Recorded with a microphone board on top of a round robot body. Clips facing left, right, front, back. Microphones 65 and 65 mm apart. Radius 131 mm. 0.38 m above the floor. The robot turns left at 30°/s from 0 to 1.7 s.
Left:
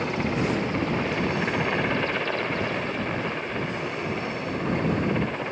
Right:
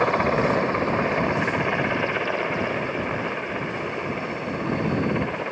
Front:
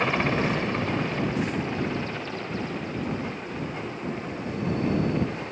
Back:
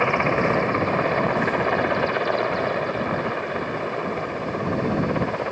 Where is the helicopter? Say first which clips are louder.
Right 6 dB, back 4 dB; 115° right; by 5.5 s 165° right.